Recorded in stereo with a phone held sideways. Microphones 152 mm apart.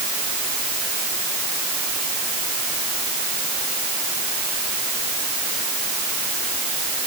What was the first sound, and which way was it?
Only background noise.